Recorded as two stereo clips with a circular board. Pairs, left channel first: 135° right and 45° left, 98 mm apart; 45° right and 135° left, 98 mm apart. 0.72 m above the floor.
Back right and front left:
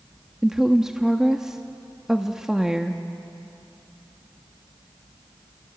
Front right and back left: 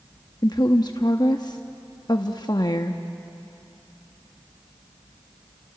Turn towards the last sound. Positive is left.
turn(degrees=-40)